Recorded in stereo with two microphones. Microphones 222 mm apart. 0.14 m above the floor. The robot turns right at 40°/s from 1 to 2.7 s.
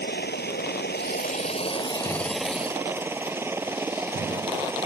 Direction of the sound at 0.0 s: 125° left.